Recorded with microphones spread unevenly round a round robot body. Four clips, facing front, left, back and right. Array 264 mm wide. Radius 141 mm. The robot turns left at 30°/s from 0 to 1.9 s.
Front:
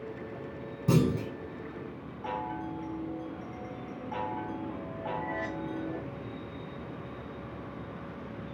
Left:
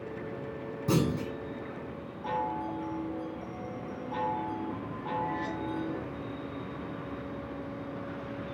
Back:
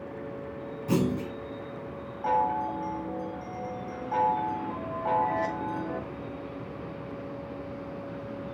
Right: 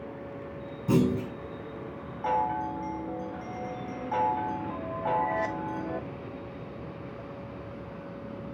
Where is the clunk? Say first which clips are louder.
Right 4 dB, even; 10° left, 2.5 m; by 1.3 s 5° right, 2.5 m.